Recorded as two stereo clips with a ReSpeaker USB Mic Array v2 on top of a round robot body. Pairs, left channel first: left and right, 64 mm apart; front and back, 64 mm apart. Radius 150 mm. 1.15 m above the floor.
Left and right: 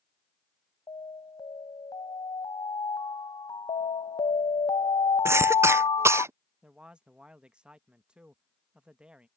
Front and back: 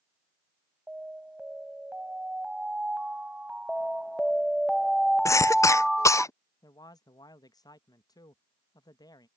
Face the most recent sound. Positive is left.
turn(degrees=-15)